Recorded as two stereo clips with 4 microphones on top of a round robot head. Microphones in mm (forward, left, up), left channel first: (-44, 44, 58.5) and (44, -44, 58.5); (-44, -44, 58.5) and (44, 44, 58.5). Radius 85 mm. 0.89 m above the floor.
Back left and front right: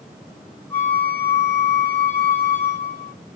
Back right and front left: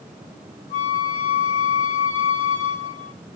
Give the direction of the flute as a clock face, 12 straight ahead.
5 o'clock.